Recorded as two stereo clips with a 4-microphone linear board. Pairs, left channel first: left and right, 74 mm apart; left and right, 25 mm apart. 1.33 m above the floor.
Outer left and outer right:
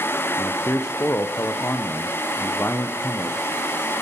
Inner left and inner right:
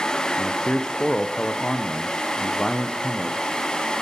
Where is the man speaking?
35° left (ahead or behind), 0.8 m.